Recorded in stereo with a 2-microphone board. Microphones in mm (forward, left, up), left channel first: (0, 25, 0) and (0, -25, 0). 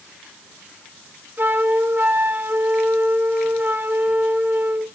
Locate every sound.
1.4 s a flute: 45° right (ahead or behind), 1.5 m